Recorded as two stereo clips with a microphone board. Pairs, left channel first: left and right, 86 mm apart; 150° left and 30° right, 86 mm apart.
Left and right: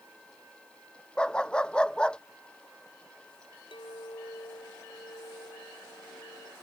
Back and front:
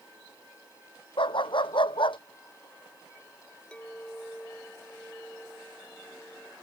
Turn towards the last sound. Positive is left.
turn(degrees=75)